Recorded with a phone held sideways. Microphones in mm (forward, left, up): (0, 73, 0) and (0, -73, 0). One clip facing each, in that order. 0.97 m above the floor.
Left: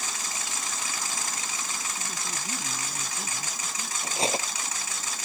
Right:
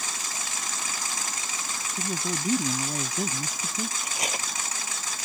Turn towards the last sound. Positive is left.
turn(degrees=30)  # may be behind; listen again after turning